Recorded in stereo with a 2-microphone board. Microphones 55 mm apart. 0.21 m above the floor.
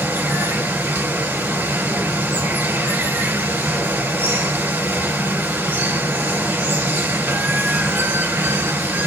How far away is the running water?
About 1.6 m.